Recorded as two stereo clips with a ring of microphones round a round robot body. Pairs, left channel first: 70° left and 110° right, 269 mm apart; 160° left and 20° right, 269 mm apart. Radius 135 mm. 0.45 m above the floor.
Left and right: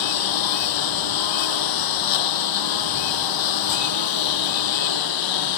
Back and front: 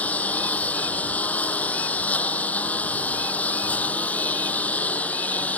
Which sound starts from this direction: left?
A lawn mower, at 0.0 s.